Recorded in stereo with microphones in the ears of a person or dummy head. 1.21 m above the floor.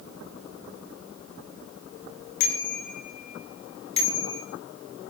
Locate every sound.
2.4 s a bicycle bell: 55° left (ahead or behind), 3.5 m; by 4.4 s 20° left (ahead or behind), 3 m